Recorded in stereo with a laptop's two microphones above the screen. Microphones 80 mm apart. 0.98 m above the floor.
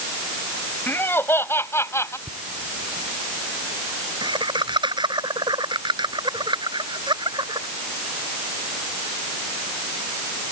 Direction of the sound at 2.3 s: 70° right (ahead or behind).